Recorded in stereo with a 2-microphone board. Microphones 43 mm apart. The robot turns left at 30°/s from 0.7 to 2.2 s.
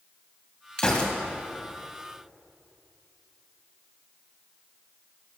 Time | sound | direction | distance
0.8 | a gunshot | 20° left (ahead or behind) | 1.8 m